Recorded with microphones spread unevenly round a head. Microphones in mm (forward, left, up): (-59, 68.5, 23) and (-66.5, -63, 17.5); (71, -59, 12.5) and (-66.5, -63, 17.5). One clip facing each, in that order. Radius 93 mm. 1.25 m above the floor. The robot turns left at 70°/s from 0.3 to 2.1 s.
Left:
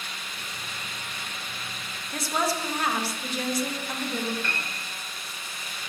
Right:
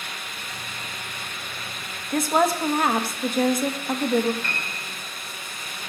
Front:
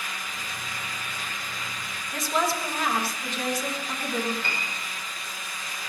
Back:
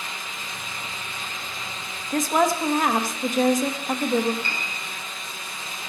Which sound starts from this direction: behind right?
A woman speaking, at 2.1 s.